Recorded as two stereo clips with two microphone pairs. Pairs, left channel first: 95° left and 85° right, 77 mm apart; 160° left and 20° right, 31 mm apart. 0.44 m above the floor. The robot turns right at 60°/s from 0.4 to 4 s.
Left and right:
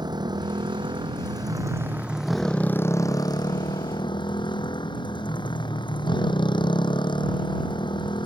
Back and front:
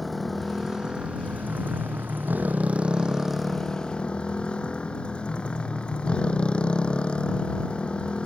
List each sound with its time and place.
0.0 s a motorcycle: 115° right; by 8.3 s 105° left